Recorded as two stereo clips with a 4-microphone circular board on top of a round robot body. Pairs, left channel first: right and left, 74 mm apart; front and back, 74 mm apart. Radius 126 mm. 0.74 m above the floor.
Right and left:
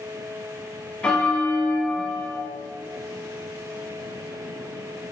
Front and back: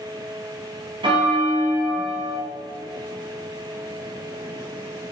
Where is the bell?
165° right, 1.1 m.